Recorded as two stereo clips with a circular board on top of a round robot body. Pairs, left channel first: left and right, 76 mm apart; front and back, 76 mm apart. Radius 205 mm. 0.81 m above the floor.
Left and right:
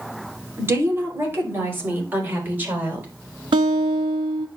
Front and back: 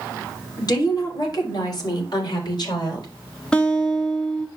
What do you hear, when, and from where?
0.6 s a woman speaking: 35° right, 3.5 m; by 3.1 s 20° right, 5 m
3.5 s a guitar: 80° right, 0.6 m